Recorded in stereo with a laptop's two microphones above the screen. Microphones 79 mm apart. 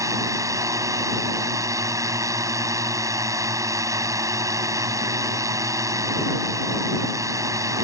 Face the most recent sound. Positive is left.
turn(degrees=-45)  # may be behind; listen again after turning